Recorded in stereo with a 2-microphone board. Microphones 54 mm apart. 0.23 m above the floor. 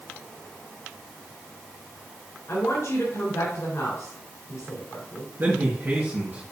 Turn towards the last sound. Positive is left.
turn(degrees=-35)  # may be behind; listen again after turning